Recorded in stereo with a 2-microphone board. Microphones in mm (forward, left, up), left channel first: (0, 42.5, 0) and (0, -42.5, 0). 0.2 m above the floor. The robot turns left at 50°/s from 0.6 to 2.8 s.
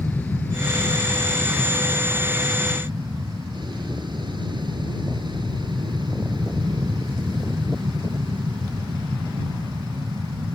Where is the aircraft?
20° left; by 10.6 s 90° right.